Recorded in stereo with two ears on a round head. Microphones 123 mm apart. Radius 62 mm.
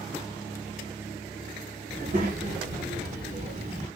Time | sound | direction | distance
1.9 | a child speaking | 55° right (ahead or behind) | 2 m